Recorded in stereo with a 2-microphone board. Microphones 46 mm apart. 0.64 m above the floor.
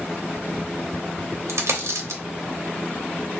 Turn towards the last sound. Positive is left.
turn(degrees=-70)  # may be behind; listen again after turning